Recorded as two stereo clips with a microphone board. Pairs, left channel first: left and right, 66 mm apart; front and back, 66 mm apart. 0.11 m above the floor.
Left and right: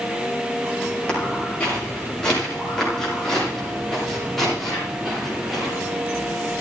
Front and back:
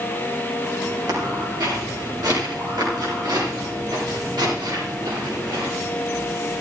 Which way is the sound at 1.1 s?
165° left.